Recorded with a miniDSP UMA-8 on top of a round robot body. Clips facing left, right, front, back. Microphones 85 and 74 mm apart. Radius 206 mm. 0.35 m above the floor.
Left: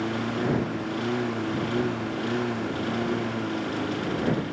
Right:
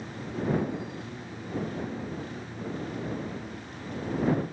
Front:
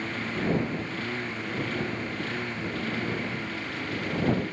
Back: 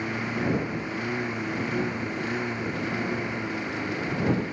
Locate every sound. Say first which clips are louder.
0.0 s a lawn mower: left 7 dB, back 2 dB; 105° left